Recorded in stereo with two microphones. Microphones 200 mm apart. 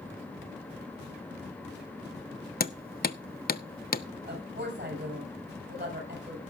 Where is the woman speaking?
65° right (ahead or behind), 7.5 m.